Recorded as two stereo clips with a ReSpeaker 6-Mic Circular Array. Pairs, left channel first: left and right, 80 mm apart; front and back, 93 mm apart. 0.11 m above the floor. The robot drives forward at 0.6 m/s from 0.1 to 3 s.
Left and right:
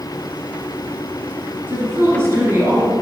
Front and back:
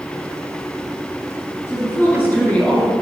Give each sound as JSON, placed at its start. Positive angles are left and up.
{"t": 1.7, "sound": "a woman speaking", "azimuth_deg": -40, "distance_m": 2.0}